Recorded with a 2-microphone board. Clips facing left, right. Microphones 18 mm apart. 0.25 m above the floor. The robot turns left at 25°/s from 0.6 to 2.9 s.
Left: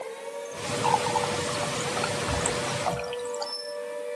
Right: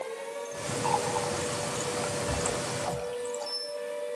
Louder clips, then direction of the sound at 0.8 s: Left 4 dB; 40° left (ahead or behind).